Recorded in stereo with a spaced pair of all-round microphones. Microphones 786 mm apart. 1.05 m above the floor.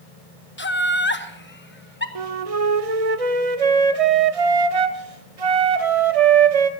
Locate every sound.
0.6 s laughter: 15° left (ahead or behind), 1.0 m
2.1 s a flute: 50° right (ahead or behind), 0.7 m